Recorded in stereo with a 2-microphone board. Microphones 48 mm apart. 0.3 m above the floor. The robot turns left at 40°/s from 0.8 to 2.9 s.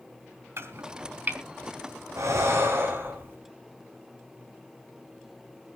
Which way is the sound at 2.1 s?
75° right (ahead or behind).